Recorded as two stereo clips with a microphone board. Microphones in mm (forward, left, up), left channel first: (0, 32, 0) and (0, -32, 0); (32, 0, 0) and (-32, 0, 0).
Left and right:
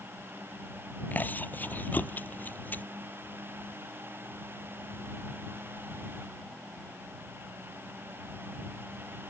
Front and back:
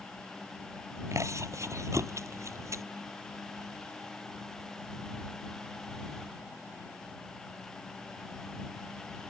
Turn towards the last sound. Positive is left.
turn(degrees=150)